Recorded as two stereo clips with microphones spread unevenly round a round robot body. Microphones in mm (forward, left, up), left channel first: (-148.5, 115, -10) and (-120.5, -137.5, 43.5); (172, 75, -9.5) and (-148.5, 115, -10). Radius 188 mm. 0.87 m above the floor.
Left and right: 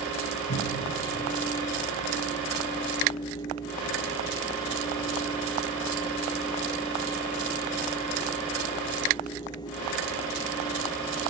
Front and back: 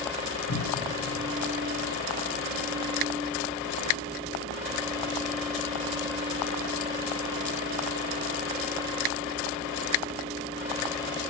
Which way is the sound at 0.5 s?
50° left.